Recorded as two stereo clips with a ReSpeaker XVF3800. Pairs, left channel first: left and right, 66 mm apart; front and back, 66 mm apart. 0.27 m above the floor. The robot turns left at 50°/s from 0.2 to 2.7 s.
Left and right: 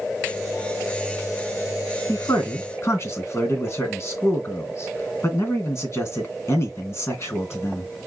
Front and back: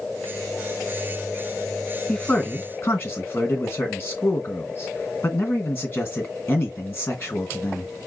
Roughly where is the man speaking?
Left.